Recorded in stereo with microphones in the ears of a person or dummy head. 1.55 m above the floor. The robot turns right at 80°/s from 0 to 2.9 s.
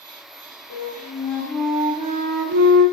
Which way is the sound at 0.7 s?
110° left.